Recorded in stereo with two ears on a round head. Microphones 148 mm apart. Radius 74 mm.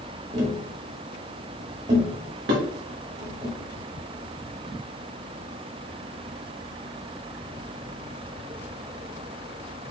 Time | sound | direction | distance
0.3 | tapping | 45° right (ahead or behind) | 1.7 m
2.5 | dishes clattering | 75° right (ahead or behind) | 1.7 m